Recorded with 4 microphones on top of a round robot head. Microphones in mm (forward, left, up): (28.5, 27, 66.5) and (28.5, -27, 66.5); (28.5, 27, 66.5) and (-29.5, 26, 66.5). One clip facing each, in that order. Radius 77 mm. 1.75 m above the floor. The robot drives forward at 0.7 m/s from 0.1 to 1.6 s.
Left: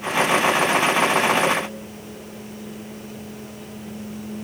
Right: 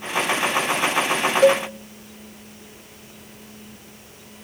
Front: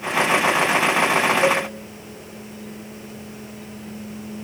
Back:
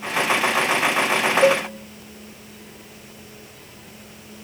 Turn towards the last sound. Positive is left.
turn(degrees=-120)